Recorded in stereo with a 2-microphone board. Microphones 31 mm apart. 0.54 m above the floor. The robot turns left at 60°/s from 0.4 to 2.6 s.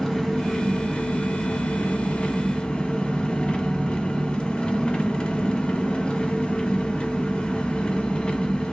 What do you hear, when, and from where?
0.0 s an engine running: 165° left, 0.9 m; by 8.7 s 30° left, 0.9 m